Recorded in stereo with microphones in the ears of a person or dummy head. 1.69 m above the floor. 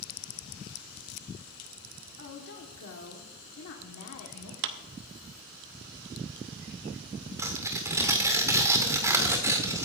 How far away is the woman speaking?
About 1.5 m.